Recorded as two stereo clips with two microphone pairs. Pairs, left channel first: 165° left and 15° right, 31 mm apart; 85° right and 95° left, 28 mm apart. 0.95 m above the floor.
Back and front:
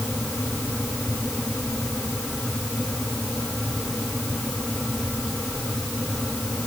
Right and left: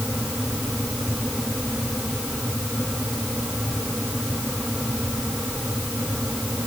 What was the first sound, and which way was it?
Only background noise.